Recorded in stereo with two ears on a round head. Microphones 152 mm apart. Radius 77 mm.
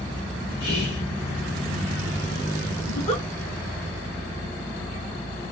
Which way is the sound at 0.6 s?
55° left (ahead or behind).